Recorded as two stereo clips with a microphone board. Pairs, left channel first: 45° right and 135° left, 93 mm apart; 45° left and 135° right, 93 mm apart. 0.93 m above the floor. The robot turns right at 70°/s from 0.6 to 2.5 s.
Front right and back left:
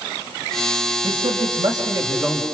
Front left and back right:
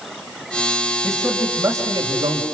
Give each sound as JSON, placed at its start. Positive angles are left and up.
{"t": 1.0, "sound": "a man speaking", "azimuth_deg": 120, "distance_m": 4.5}